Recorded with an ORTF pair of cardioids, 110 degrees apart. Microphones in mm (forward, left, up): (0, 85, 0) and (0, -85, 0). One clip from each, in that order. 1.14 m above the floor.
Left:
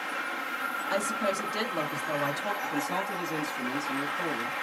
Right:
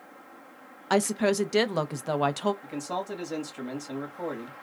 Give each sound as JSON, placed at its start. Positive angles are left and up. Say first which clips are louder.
{"t": 0.9, "sound": "a woman speaking", "louder": "right 6 dB", "azimuth_deg": -45, "distance_m": 0.8}
{"t": 2.6, "sound": "a man speaking", "louder": "left 3 dB", "azimuth_deg": -10, "distance_m": 1.9}